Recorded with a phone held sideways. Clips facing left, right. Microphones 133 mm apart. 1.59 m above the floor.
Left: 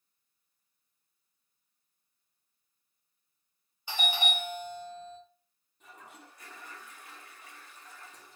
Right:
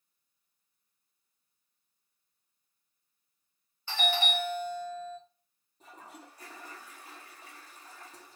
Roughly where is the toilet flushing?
Right.